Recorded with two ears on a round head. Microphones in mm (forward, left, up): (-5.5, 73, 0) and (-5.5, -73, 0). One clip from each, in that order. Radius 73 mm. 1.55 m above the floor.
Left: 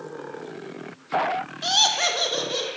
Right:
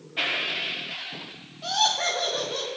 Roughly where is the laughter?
Left.